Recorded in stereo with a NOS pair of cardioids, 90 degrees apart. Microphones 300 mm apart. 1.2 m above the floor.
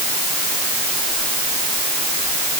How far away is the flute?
I don't hear a flute.